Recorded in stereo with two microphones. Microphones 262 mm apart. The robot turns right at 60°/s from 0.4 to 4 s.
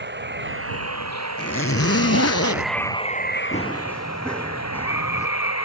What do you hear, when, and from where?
0.0 s running water: 135° right; by 5.7 s 80° left
1.4 s a zipper: 45° left; by 2.7 s 125° left
3.5 s running footsteps: 30° left (ahead or behind); by 5.3 s 10° left (ahead or behind)